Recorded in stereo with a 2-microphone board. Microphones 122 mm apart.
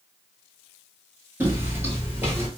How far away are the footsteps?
About 1.1 m.